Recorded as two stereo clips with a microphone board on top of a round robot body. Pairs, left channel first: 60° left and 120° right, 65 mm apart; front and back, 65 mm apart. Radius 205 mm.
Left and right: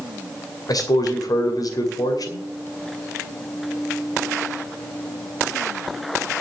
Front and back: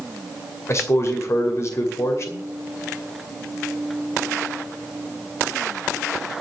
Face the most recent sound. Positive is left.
turn(degrees=45)